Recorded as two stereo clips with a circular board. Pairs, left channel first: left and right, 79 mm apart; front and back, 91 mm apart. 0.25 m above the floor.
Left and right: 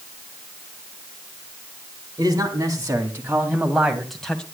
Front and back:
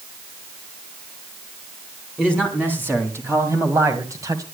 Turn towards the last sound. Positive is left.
turn(degrees=165)